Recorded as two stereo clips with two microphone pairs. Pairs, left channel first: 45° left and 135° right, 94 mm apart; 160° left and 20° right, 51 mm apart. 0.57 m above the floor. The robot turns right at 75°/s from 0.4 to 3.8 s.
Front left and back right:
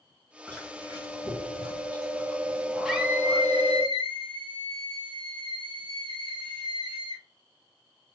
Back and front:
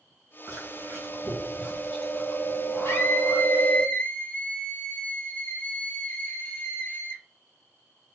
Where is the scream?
140° left, 1.2 m; by 7.2 s 150° right, 1.2 m.